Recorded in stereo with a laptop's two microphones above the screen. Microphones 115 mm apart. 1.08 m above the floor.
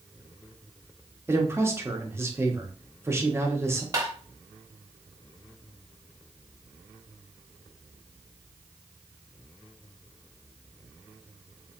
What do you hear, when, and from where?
1.3 s a man speaking: 20° right (ahead or behind), 1.0 m
3.9 s tapping: 30° right (ahead or behind), 0.9 m